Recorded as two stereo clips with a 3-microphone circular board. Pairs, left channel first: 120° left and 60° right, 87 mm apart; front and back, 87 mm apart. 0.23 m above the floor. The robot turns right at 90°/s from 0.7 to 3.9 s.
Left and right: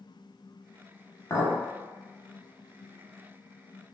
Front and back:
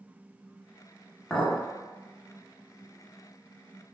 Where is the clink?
85° left, 0.8 m; by 1.6 s 110° left, 0.8 m.